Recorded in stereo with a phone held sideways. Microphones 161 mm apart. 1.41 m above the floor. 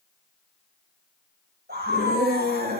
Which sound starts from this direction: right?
A scream, at 1.7 s.